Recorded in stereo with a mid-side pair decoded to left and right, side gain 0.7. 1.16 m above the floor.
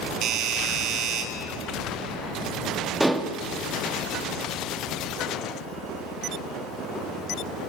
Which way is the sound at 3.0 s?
10° right.